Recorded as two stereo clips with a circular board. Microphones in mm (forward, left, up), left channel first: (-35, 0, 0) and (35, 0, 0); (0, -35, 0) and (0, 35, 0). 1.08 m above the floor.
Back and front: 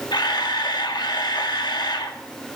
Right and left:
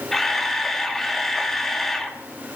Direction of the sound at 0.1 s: 175° right.